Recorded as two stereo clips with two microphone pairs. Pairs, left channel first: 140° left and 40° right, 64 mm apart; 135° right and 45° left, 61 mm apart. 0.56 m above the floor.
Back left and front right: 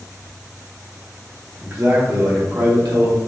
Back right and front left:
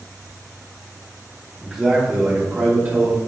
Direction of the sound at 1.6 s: 50° right.